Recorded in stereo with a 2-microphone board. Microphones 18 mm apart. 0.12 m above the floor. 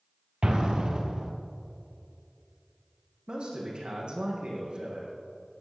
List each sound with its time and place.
0.4 s an explosion: 45° right (ahead or behind), 2 m
3.3 s a man speaking: 55° right (ahead or behind), 5.5 m